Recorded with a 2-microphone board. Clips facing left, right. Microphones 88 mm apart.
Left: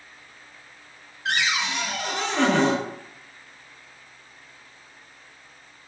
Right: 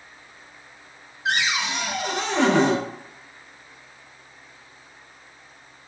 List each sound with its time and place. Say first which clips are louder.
1.2 s a cupboard door: right 1 dB; 15° right (ahead or behind), 0.6 m